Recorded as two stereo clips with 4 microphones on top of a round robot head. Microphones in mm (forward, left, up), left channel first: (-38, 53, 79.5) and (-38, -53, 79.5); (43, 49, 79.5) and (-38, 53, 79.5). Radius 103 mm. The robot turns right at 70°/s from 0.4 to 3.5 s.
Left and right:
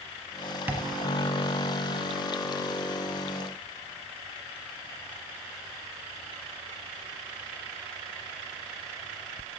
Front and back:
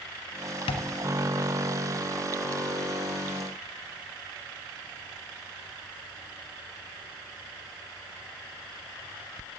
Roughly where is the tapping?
Ahead.